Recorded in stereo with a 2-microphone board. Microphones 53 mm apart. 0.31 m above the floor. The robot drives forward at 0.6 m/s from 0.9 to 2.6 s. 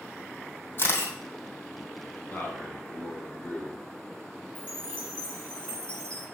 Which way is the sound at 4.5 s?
25° left (ahead or behind).